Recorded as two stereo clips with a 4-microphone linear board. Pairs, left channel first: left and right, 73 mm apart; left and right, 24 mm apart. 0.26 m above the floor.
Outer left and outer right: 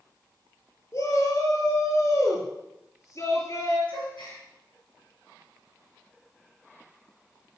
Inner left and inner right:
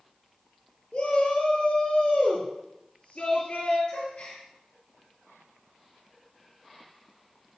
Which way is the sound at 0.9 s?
50° left (ahead or behind).